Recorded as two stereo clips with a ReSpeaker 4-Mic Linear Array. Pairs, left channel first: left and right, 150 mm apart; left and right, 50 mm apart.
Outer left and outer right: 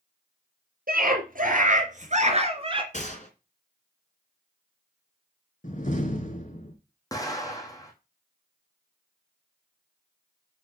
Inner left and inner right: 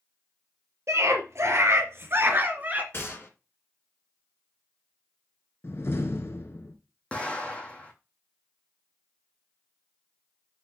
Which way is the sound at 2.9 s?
50° left (ahead or behind).